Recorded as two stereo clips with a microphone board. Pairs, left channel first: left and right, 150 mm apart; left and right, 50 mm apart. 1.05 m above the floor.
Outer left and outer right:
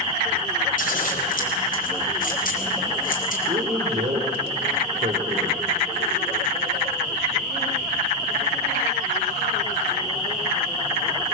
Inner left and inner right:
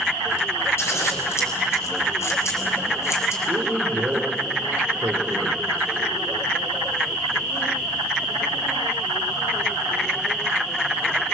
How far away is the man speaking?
About 4 m.